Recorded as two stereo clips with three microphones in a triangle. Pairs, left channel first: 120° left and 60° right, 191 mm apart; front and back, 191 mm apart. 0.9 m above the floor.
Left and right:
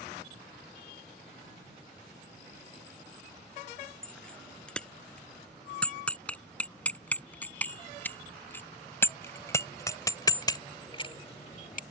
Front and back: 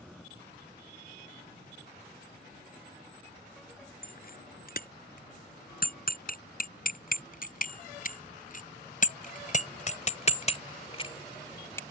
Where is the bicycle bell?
35° left; by 11.8 s 75° left.